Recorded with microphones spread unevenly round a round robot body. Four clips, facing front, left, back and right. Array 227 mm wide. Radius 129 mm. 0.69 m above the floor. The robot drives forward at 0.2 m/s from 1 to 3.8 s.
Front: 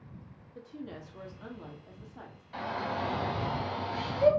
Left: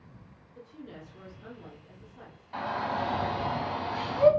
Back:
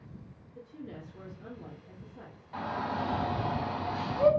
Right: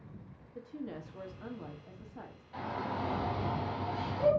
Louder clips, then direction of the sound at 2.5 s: Left 6 dB, back 1 dB; 95° left.